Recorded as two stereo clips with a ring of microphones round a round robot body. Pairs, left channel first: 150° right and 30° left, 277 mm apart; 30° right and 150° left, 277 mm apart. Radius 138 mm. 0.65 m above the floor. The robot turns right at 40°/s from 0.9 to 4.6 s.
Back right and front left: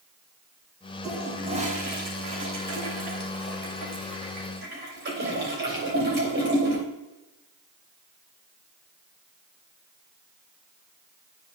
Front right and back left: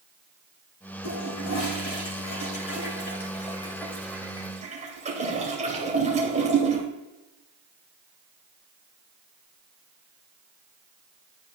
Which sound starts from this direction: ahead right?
A toilet flushing, at 1.0 s.